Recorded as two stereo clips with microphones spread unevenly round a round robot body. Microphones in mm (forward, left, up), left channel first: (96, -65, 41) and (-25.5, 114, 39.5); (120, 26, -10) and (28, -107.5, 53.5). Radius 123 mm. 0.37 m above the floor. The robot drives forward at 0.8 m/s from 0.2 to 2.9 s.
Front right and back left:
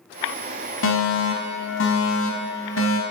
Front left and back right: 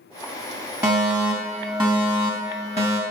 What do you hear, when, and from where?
0.8 s a fire alarm: 45° right, 5.5 m; by 3.0 s 65° right, 4.5 m